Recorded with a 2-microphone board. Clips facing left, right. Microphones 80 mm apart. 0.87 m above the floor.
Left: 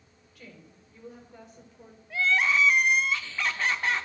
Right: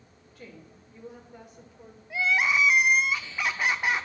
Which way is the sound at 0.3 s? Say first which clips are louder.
Right 3 dB; 30° right (ahead or behind).